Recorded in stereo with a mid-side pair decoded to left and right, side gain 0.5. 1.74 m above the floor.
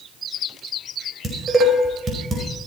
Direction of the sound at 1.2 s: 35° right.